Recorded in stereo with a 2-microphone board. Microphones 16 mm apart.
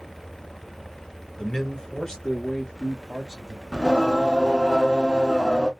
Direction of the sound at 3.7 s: 40° left (ahead or behind).